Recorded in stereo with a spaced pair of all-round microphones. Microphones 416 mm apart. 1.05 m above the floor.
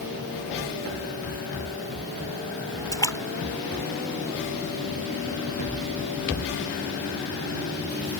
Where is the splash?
10° left (ahead or behind).